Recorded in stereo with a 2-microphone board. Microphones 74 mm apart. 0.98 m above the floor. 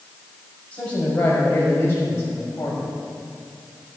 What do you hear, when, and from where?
0.7 s a man speaking: 20° left (ahead or behind), 6.5 m; by 2.8 s 40° left (ahead or behind), 5.5 m